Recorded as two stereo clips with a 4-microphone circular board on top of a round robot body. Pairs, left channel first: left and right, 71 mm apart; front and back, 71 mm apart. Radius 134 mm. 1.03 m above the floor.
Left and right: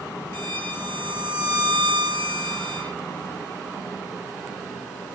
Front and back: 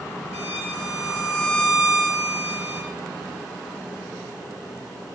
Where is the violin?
55° right, 4 m.